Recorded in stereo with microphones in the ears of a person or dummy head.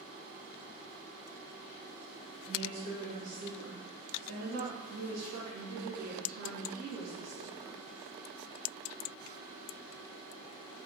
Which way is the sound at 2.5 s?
50° right (ahead or behind).